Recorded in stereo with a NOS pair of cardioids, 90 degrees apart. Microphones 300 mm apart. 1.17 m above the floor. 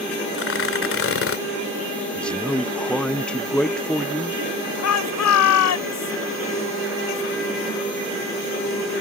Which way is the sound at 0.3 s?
45° left.